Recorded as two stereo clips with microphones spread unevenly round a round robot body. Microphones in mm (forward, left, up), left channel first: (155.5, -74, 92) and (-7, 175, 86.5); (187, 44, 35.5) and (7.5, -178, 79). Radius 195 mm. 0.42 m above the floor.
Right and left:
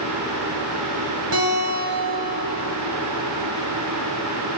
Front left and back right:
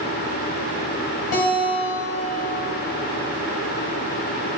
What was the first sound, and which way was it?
A guitar, 80° left.